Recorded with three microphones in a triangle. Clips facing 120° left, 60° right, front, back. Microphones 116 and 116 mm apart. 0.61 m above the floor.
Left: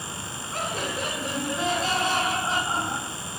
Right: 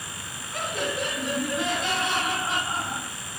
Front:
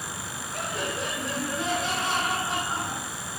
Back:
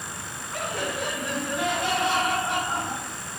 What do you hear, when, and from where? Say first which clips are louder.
0.5 s laughter: right 1 dB, back 2 dB; 165° left, 7 m; by 3.2 s 175° left, 4 m